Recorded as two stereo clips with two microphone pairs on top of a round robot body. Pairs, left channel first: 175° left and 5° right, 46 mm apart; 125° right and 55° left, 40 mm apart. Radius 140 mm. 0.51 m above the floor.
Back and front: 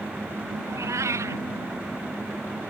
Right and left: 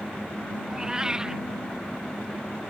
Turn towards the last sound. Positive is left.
turn(degrees=-20)